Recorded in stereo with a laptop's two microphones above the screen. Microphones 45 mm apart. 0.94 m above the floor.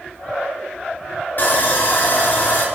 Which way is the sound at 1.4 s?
45° left (ahead or behind).